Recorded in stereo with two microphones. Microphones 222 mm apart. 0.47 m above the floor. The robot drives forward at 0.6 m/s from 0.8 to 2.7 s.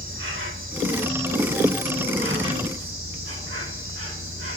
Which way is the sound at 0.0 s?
65° right (ahead or behind).